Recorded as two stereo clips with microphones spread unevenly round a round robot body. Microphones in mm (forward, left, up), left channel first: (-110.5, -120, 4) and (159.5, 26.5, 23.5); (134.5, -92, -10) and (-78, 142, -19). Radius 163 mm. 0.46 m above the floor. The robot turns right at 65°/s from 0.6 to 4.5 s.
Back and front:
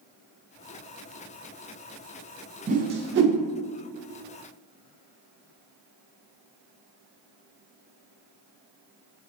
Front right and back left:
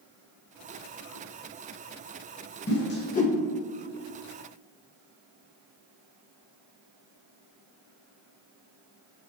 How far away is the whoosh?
About 0.5 m.